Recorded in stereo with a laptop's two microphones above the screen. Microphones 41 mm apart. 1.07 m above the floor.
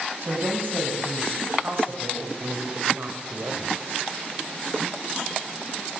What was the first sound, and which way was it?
A woman speaking, 60° right (ahead or behind).